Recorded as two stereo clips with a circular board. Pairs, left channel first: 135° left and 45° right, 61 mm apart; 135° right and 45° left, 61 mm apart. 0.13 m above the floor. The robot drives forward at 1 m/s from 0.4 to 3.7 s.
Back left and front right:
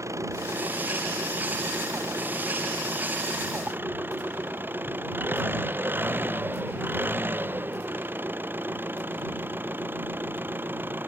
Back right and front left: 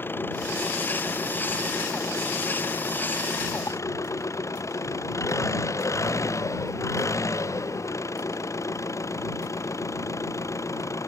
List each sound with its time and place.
0.0 s an engine running: 80° right; by 11.1 s 100° right